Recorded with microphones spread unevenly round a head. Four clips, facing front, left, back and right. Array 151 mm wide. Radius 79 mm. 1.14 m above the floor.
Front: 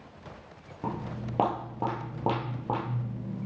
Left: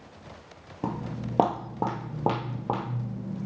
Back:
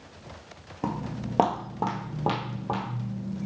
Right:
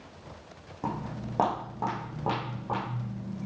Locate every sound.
0.8 s footsteps: 140° left, 1.3 m; by 3.5 s 80° left, 1.9 m